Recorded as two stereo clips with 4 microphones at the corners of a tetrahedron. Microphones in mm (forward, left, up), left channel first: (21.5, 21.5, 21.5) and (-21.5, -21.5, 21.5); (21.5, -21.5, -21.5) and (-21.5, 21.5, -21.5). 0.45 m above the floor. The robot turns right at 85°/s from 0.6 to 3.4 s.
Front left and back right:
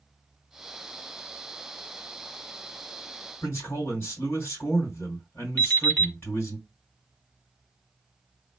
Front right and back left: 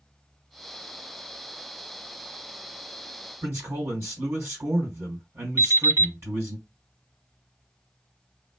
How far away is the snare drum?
No snare drum in this recording.